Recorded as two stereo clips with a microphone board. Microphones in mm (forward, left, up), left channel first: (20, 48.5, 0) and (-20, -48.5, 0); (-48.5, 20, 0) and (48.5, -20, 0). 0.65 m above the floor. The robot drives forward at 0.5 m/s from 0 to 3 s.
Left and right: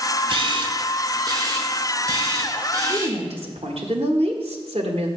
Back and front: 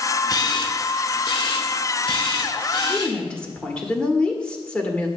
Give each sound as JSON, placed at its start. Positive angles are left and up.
{"t": 0.3, "sound": "a camera shutter", "azimuth_deg": -150, "distance_m": 0.7}
{"t": 2.9, "sound": "a woman speaking", "azimuth_deg": -120, "distance_m": 1.4}